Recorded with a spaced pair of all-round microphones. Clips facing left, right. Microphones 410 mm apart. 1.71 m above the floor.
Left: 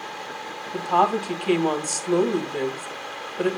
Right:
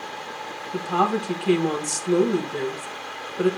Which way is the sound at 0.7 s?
35° right (ahead or behind).